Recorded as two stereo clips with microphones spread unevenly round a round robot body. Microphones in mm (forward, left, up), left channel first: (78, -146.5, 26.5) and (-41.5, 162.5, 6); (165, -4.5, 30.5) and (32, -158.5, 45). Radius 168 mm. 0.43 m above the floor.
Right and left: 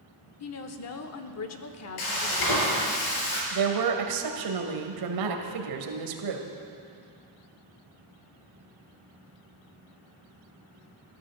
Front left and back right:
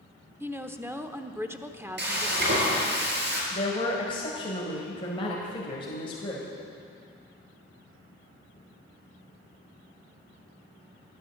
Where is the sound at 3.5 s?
120° left, 1.9 m.